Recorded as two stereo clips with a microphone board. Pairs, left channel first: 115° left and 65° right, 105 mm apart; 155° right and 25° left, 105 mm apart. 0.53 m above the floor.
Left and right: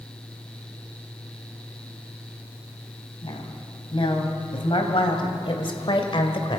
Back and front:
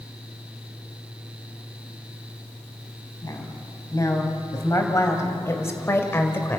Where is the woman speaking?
150° left, 4 m; by 6.6 s 135° left, 2 m.